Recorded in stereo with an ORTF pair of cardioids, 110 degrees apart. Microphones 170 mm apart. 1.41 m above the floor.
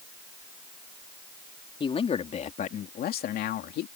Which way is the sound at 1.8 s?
30° left.